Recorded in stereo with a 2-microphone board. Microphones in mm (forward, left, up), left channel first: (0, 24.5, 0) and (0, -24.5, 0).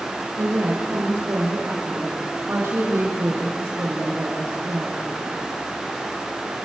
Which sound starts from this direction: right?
A woman speaking, at 0.4 s.